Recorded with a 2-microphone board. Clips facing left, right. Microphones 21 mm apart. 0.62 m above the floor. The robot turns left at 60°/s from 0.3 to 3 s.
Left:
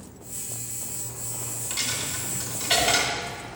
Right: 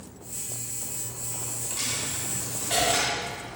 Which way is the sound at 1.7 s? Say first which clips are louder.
Left 2 dB; 30° left (ahead or behind).